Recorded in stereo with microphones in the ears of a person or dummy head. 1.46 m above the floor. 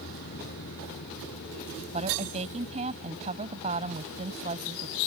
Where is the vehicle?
55° left (ahead or behind); by 5.1 s 60° left (ahead or behind).